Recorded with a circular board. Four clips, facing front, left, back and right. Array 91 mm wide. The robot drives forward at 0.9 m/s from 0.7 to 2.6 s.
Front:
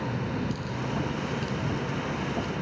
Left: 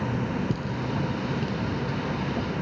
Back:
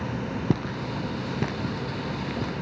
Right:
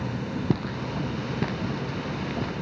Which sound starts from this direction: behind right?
Footsteps, at 0.5 s.